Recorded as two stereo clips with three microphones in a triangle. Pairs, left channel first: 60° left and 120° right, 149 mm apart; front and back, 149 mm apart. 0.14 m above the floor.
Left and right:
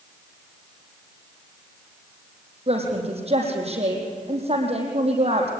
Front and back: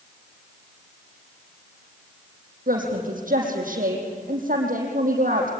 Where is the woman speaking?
165° right, 5.5 m.